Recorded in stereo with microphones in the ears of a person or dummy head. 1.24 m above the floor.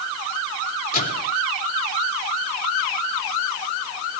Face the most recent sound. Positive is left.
turn(degrees=45)  # may be behind; listen again after turning